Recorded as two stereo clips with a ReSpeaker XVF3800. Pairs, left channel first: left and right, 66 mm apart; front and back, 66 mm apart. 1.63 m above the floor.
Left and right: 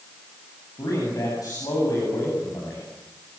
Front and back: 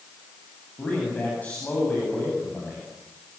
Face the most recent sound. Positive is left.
turn(degrees=70)